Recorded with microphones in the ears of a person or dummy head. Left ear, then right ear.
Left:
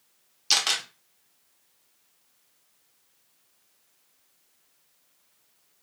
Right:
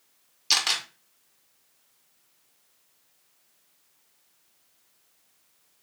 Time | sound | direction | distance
0.5 | a camera shutter | centre (ahead or behind) | 0.9 m